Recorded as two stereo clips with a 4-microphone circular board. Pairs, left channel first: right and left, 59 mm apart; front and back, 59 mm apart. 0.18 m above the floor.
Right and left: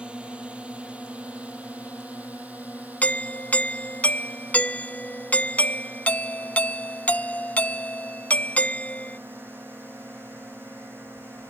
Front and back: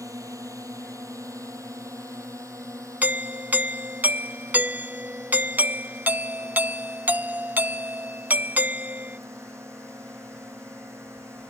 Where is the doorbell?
140° right.